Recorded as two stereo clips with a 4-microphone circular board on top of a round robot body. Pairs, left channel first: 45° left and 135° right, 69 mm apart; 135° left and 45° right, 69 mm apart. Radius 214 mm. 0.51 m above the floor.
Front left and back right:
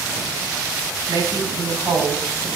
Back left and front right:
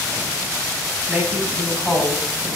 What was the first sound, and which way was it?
A woman speaking, 125° right.